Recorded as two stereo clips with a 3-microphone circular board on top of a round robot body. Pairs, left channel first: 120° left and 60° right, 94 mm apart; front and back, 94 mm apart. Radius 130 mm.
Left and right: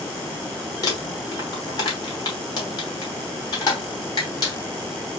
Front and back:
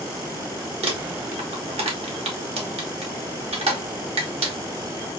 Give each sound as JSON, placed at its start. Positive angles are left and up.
{"t": 0.8, "sound": "crumpling", "azimuth_deg": 170, "distance_m": 1.1}